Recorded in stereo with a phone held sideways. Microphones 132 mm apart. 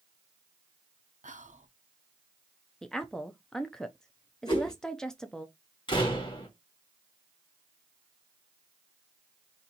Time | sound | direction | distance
1.2 | whispering | 70° right (ahead or behind) | 0.7 m
2.8 | a woman speaking | 5° left (ahead or behind) | 0.5 m
4.5 | a whoosh | 40° left (ahead or behind) | 1.7 m
5.9 | a door slam | 40° left (ahead or behind) | 1.3 m